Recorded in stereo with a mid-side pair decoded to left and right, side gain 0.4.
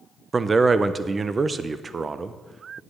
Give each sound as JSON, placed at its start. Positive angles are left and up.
{"t": 0.3, "sound": "a man speaking", "azimuth_deg": -35, "distance_m": 0.8}